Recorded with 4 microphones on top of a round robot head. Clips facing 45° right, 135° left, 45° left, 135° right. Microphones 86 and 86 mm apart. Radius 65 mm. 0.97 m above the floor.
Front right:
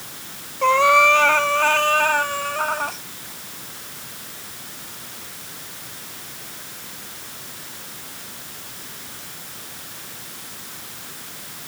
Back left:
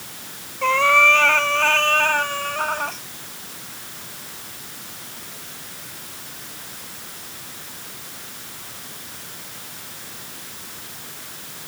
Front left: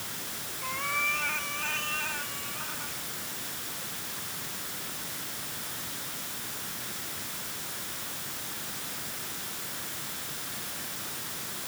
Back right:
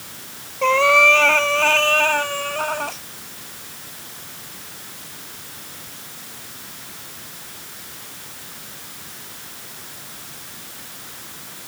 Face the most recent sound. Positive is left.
turn(degrees=-135)